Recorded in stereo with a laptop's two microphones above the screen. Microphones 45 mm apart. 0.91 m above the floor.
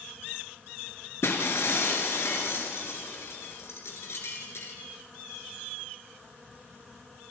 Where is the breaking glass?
65° left (ahead or behind), 3.5 m.